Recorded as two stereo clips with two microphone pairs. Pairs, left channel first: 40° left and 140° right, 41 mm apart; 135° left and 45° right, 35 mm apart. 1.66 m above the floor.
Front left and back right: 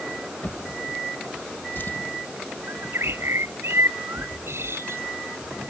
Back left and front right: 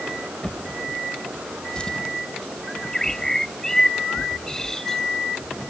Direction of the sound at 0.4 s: 70° left.